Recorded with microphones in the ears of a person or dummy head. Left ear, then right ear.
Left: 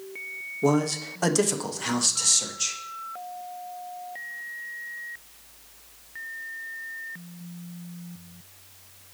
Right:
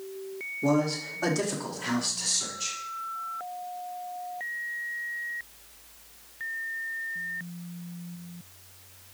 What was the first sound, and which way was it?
A man speaking, 35° left (ahead or behind).